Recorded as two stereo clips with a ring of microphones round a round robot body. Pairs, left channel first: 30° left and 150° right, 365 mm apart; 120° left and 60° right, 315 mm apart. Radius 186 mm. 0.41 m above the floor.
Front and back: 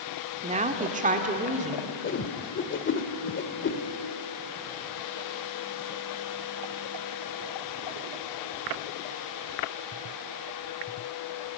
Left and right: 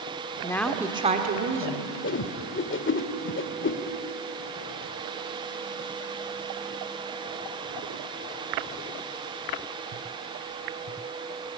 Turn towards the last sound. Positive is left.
turn(degrees=80)